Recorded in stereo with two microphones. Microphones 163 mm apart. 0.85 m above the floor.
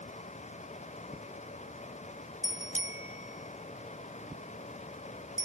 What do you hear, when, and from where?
2.4 s a bicycle bell: 50° left (ahead or behind); by 5.4 s 55° left (ahead or behind)